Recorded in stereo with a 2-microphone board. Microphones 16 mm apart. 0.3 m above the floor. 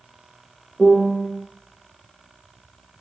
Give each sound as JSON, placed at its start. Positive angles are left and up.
{"t": 0.8, "sound": "a piano", "side_deg": 10, "distance_m": 5.0}